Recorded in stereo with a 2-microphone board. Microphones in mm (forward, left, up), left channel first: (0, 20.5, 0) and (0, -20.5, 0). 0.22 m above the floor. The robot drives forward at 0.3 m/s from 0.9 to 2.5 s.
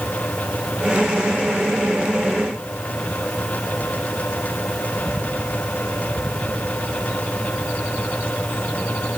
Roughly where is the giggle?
No giggle in this recording.